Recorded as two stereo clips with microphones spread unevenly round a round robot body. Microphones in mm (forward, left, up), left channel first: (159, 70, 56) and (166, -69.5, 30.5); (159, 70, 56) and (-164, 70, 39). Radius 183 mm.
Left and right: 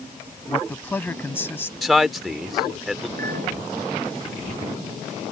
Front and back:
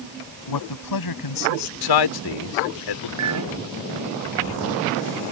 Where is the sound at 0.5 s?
15° left; by 1.7 s 20° left.